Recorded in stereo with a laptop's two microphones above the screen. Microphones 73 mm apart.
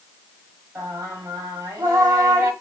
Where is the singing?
30° right (ahead or behind), 1.2 m.